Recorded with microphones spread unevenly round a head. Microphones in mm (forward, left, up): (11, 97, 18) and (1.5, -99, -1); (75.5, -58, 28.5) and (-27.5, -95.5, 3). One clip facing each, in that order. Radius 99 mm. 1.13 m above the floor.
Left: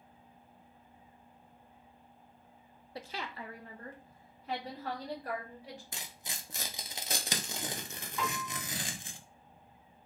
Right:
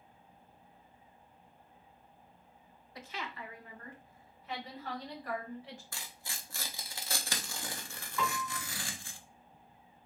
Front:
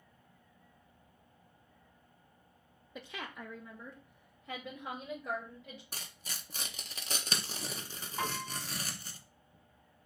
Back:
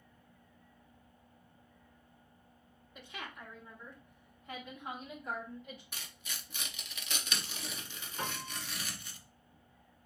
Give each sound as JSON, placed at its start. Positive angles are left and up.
{"t": 3.0, "sound": "a woman speaking", "azimuth_deg": 25, "distance_m": 0.6}
{"t": 5.9, "sound": "tearing paper", "azimuth_deg": 30, "distance_m": 0.6}
{"t": 8.2, "sound": "a piano", "azimuth_deg": 30, "distance_m": 2.5}